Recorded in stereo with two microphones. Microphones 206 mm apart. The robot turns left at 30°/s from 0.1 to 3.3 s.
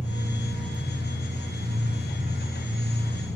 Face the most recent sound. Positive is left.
turn(degrees=-165)